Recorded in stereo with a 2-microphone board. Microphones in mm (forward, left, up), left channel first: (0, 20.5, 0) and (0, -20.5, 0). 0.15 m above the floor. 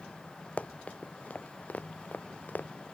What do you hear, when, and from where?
0.6 s running footsteps: 35° left (ahead or behind); by 2.7 s 50° left (ahead or behind)